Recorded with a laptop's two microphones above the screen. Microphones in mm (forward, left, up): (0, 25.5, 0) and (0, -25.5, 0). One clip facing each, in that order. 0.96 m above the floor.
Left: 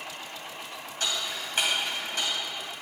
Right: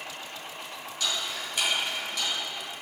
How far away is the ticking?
About 2.5 m.